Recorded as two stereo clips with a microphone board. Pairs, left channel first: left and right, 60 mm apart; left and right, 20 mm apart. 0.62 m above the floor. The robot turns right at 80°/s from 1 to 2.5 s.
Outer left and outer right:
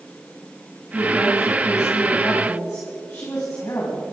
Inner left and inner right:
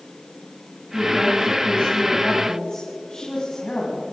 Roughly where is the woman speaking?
Ahead.